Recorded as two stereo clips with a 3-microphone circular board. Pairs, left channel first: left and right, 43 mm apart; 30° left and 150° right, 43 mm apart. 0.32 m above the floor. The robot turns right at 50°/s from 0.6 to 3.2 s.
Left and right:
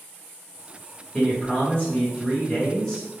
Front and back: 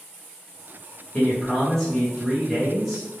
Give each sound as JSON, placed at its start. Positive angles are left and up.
{"t": 1.1, "sound": "a man speaking", "azimuth_deg": 50, "distance_m": 0.9}